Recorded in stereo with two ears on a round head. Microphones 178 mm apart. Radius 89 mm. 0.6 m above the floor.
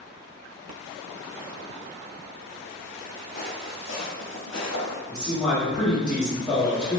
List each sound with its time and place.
3.4 s footsteps: 50° left (ahead or behind), 1.4 m; by 5.0 s 65° left (ahead or behind), 1.6 m
5.1 s a man speaking: 5° left (ahead or behind), 0.9 m